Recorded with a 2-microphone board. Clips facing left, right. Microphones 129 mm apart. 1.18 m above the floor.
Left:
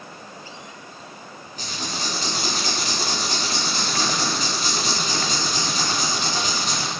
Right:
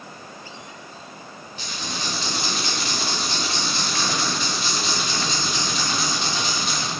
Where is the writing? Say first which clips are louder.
Left 1 dB; 40° left (ahead or behind), 2.5 m.